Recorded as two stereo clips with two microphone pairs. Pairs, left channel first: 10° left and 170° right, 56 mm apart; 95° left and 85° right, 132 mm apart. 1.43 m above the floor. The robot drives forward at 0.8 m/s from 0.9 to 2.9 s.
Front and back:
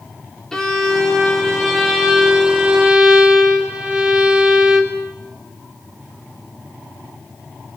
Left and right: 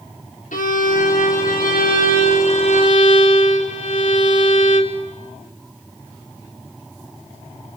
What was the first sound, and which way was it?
A violin, 90° left.